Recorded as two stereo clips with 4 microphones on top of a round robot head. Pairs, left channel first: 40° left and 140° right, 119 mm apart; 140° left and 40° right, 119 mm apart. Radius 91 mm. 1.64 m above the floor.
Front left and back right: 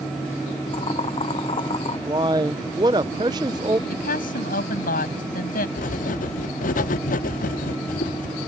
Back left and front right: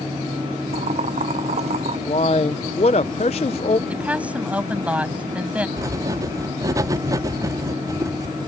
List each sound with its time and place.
0.7 s boiling: 5° right
2.1 s a man speaking: 170° left
3.9 s a woman speaking: 40° left
5.8 s writing: 25° left